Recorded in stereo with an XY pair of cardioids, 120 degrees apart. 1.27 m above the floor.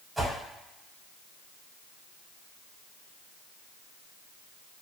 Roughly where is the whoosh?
Ahead.